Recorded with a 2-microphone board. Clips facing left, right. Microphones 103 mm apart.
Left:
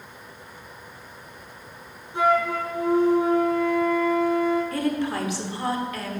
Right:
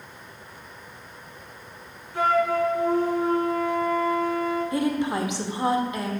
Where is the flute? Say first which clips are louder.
Even; 25° left (ahead or behind), 1.9 m.